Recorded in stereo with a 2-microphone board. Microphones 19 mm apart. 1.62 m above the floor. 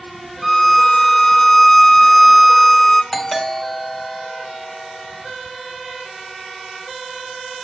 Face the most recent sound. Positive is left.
turn(degrees=15)  # may be behind; listen again after turning